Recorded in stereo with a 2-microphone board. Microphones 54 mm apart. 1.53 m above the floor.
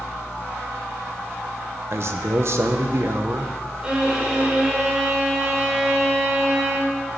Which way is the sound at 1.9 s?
50° right (ahead or behind).